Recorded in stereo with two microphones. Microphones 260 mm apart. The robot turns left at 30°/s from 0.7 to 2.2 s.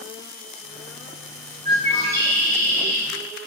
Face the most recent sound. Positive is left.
turn(degrees=5)  # may be behind; listen again after turning